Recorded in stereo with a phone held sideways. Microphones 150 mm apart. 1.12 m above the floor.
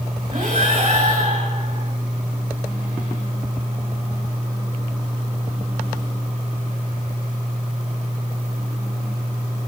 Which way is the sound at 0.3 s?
55° right (ahead or behind).